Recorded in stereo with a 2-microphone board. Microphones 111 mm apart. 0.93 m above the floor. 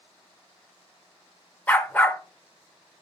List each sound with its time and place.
1.7 s a dog barking: 15° left (ahead or behind), 0.6 m